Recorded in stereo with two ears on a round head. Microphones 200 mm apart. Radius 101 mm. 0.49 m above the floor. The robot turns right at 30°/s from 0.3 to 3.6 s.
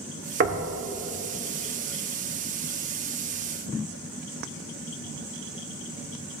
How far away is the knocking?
About 0.9 m.